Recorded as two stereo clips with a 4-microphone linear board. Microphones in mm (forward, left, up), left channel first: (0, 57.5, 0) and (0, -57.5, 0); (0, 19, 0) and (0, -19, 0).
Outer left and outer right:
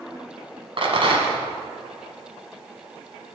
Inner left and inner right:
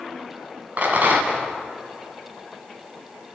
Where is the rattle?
55° right (ahead or behind), 1.3 m.